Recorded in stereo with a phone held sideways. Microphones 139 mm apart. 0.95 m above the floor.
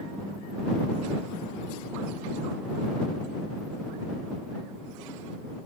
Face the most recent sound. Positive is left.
No sound to turn to.